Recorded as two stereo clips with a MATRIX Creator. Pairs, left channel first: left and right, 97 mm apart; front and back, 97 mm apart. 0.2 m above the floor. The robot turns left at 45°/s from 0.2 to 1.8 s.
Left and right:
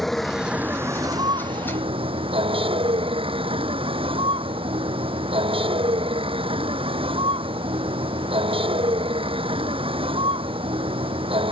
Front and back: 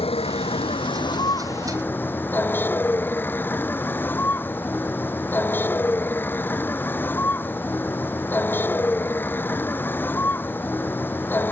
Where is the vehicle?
Straight ahead; by 11.5 s 70° right.